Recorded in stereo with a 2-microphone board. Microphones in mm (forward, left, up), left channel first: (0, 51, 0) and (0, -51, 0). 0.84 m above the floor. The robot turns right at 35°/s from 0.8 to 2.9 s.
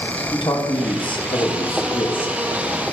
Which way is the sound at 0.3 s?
60° left.